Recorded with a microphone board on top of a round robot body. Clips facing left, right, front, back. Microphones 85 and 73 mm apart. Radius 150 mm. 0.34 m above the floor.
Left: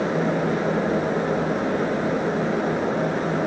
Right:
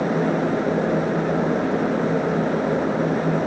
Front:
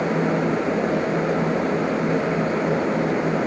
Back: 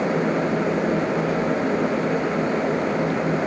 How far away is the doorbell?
No doorbell in this recording.